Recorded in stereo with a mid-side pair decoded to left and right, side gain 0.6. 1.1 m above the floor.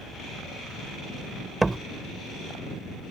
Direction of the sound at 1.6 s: 15° right.